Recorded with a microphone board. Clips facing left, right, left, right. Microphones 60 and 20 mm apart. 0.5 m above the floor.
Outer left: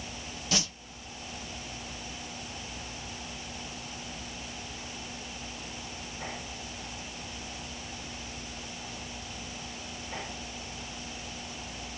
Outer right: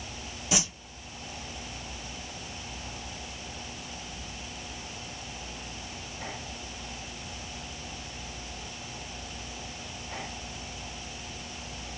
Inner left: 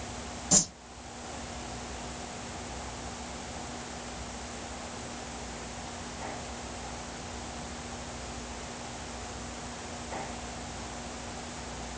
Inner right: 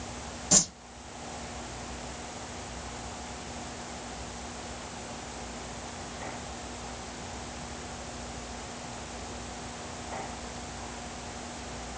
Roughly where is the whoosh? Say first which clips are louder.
Outer right 2 dB, inner right 2 dB; centre.